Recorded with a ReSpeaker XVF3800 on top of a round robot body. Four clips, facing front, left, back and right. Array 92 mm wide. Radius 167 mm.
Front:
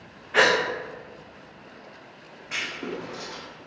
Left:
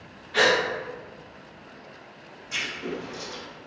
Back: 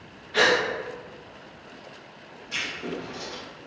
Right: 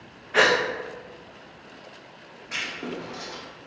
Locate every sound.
0.3 s a gasp: 45° right, 0.6 m
2.5 s writing: 35° right, 0.8 m